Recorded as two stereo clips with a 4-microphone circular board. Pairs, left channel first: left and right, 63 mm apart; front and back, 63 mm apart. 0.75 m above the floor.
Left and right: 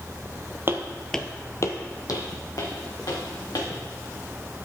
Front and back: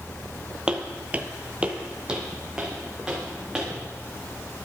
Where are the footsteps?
110° right, 1.0 m; by 3.7 s 100° left, 4 m.